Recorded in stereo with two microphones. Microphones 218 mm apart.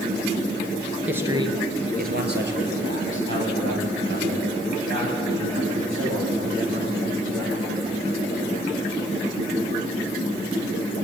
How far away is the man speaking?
About 2 m.